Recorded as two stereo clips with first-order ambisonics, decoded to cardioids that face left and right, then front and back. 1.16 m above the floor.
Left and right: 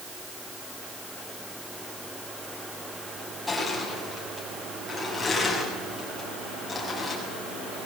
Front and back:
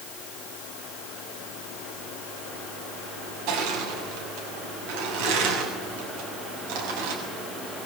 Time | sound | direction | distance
3.5 | crushing | 175° left | 6.5 m